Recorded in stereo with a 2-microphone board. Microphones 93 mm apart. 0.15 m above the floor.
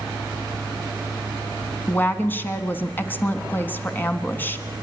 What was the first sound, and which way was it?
A woman speaking, 20° left (ahead or behind).